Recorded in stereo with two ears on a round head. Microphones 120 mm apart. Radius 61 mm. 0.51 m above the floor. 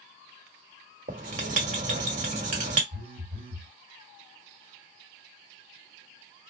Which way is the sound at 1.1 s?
55° right (ahead or behind).